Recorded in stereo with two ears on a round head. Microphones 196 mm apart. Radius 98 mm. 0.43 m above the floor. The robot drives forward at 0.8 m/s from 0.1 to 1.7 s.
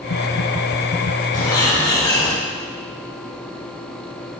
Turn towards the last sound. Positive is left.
turn(degrees=20)  # may be behind; listen again after turning